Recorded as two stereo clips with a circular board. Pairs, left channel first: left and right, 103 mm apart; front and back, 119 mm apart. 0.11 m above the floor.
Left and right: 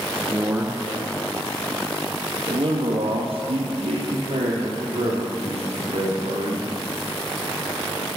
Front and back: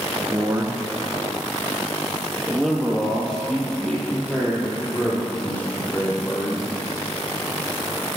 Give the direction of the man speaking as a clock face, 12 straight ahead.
5 o'clock.